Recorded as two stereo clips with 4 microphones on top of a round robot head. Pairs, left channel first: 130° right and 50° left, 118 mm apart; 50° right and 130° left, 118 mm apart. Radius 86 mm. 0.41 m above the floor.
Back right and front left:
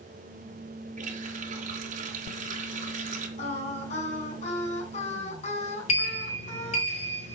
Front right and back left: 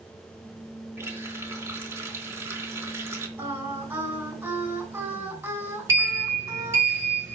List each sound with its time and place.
1.0 s a running tap: 60° left, 3.5 m
3.4 s singing: 155° right, 5 m
5.9 s a sliding door: 160° right, 4.5 m